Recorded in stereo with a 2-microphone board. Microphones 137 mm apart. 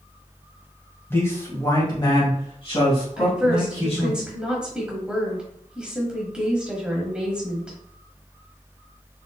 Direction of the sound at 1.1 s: 15° left (ahead or behind).